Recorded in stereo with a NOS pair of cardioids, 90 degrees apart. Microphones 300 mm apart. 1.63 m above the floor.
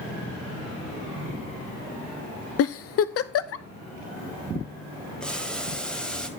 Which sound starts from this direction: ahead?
Boiling, at 5.2 s.